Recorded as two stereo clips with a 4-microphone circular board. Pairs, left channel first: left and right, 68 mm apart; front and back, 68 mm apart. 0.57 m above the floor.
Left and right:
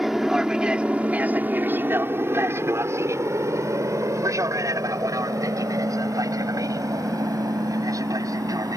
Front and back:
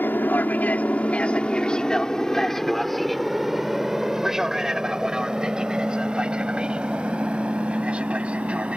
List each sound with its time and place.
0.0 s an aircraft: 10° right; by 8.8 s 110° right